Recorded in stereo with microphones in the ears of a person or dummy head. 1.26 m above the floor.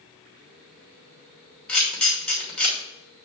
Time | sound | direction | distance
1.7 | a camera shutter | 10° left (ahead or behind) | 2.5 m